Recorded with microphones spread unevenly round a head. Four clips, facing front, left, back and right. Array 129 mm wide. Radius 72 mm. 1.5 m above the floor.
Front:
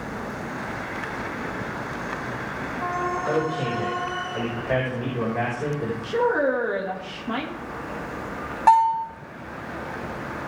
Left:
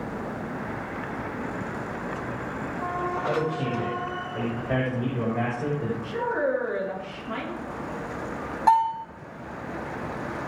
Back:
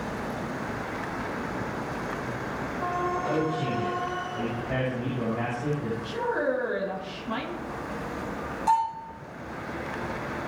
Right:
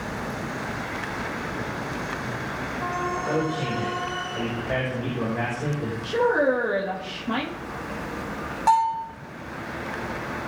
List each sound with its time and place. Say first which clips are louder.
3.3 s a man speaking: even, front 3 dB; 5° left, 6.5 m; by 5.9 s 5° right, 5 m
6.0 s a woman speaking: right 7 dB, front 7 dB; 40° right, 2.5 m
8.7 s a bell: even, front 8 dB; 5° left, 9 m